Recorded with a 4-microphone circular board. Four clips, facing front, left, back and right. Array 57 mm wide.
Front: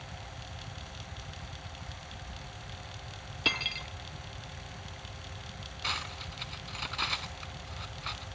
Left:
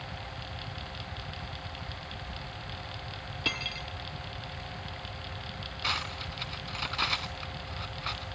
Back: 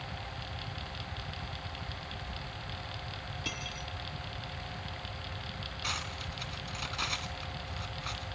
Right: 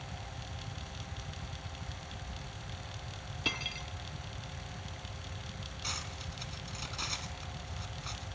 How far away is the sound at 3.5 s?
About 0.8 m.